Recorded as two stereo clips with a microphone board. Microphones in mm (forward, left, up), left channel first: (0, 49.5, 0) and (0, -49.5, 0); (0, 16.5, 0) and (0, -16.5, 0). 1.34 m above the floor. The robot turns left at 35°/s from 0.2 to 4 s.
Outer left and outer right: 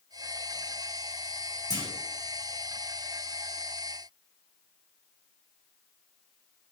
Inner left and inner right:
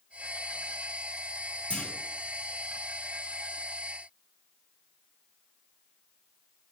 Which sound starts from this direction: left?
A clunk, at 1.7 s.